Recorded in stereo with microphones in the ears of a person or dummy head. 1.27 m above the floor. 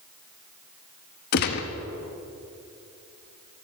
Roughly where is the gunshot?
Left.